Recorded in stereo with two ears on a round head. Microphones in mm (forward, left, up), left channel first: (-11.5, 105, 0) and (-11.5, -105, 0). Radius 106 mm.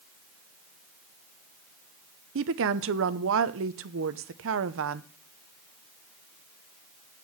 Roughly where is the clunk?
No clunk in this recording.